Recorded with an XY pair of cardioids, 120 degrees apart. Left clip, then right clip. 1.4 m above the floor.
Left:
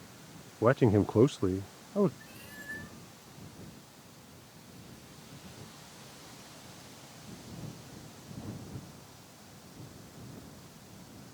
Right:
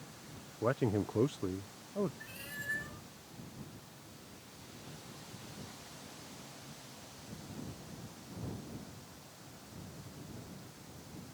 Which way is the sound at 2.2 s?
30° right.